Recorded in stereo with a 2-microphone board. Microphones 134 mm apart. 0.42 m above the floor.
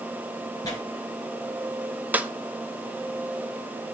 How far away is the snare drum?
About 0.5 m.